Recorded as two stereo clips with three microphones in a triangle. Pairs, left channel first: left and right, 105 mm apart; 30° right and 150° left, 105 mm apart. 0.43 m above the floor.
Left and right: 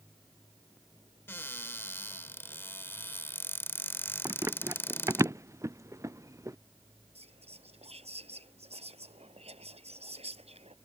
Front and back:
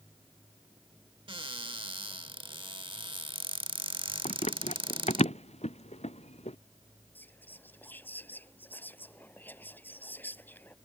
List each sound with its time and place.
1.3 s a cupboard door: 150° left
4.2 s running footsteps: 25° right; by 6.6 s 30° right
7.2 s whispering: 105° right